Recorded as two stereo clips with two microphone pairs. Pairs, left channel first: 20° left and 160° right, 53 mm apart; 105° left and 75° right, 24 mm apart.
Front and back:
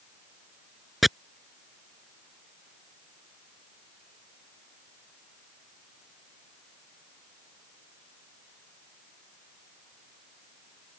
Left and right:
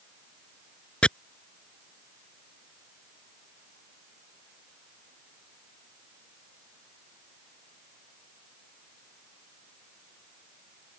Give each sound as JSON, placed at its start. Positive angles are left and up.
{"t": 1.0, "sound": "chopping", "azimuth_deg": 110}